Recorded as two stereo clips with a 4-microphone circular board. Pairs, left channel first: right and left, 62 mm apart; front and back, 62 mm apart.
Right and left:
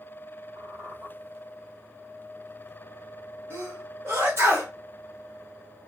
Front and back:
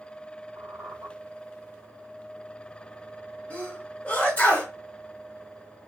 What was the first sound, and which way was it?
A squeak, 55° left.